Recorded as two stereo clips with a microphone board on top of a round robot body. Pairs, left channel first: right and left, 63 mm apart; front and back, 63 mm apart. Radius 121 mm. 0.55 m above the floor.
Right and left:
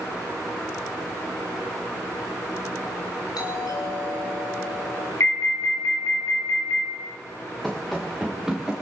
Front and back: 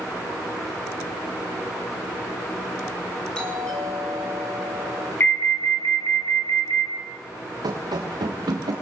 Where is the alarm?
50° right, 5 m.